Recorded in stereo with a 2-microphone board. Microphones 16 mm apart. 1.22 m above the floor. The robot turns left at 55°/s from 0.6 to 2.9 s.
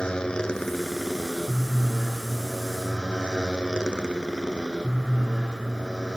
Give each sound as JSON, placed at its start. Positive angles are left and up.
{"t": 0.0, "sound": "a motorcycle", "azimuth_deg": 65}